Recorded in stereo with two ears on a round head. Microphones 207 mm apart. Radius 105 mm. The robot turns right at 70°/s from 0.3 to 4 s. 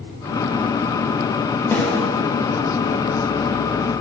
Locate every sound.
1.7 s a snare drum: 10° left (ahead or behind), 2.5 m; by 2.1 s 15° right (ahead or behind), 2.5 m